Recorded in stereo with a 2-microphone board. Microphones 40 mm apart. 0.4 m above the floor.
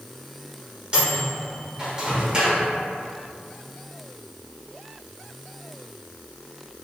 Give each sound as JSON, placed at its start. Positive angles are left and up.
{"t": 0.9, "sound": "a microwave", "side_deg": -20, "distance_m": 0.8}